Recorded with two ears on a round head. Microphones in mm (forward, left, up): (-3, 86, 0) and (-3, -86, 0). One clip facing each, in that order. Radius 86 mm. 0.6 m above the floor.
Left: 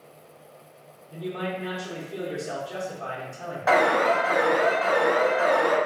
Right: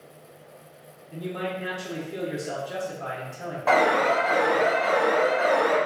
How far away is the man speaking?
About 1.3 m.